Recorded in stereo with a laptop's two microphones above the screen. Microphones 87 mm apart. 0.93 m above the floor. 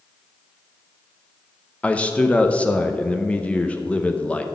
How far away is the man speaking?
About 0.6 m.